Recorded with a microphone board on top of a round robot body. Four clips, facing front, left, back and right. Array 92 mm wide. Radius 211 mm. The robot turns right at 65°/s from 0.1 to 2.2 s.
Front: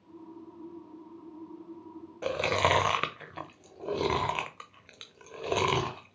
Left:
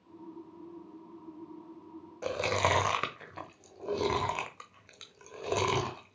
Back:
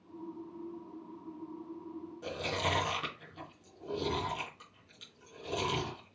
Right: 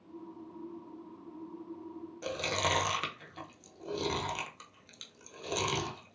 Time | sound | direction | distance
2.2 | chewing | 30° left | 0.9 m